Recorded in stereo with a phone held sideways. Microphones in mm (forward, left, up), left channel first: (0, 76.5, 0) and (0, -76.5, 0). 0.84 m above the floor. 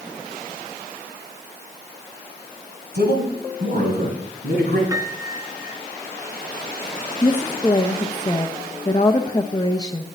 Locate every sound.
2.9 s a man speaking: 80° right, 5 m; by 4.8 s 85° right, 6.5 m
4.9 s a piano: 20° right (ahead or behind), 1.7 m
7.2 s a woman speaking: 25° left (ahead or behind), 0.7 m